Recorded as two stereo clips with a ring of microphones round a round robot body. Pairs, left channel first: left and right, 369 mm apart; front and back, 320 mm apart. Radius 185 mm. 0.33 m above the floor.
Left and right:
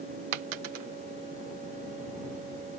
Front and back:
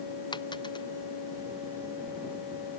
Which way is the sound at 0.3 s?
80° right.